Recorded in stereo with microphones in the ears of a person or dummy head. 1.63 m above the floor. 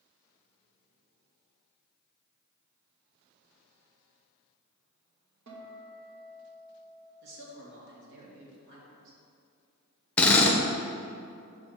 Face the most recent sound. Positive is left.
turn(degrees=5)  # may be behind; listen again after turning